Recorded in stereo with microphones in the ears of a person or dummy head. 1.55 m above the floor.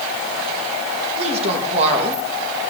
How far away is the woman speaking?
About 2.5 m.